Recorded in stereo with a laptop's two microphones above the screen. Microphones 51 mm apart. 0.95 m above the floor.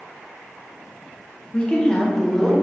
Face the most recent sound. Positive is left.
turn(degrees=0)  # may be behind; listen again after turning